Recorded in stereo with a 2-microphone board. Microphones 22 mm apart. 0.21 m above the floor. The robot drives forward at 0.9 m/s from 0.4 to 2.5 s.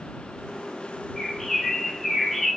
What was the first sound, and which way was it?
A bird, 10° left (ahead or behind).